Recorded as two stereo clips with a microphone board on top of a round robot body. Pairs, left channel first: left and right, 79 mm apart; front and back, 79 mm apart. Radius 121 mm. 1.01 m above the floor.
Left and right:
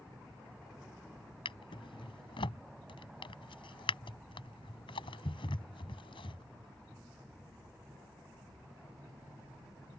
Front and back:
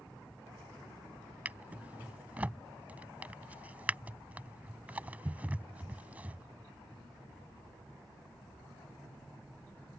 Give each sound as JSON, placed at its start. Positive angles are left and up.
{"t": 1.4, "sound": "a drawer", "azimuth_deg": 105}